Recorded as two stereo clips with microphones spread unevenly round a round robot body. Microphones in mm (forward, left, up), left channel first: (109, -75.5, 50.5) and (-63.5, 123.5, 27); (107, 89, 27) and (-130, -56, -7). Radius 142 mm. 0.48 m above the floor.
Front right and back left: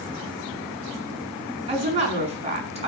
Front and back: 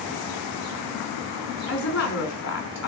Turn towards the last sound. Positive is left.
turn(degrees=65)